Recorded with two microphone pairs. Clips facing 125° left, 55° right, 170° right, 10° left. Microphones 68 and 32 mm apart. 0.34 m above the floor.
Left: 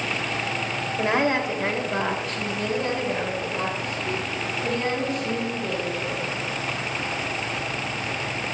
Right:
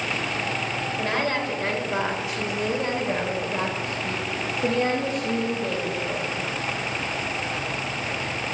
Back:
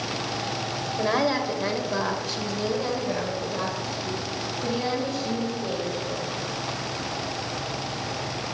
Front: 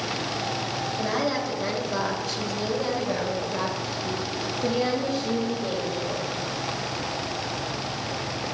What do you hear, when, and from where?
1.0 s a woman speaking: 165° left, 1.3 m; by 6.4 s 50° right, 2.5 m